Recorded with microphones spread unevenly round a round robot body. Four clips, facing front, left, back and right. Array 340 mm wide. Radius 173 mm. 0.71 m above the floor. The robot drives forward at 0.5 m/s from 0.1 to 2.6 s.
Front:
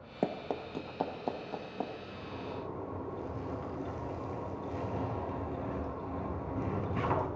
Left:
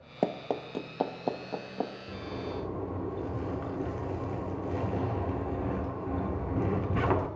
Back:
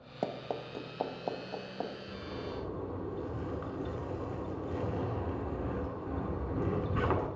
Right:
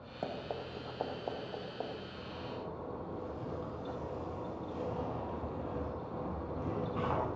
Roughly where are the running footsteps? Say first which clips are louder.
Left 9 dB, front 2 dB; ahead left.